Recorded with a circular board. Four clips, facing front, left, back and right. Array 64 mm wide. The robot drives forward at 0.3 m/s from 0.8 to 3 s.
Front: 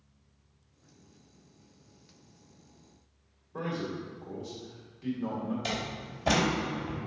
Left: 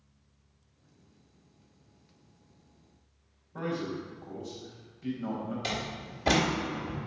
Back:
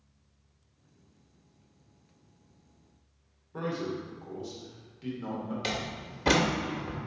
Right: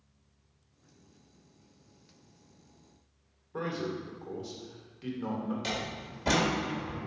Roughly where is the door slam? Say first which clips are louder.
Left 1 dB, even; behind.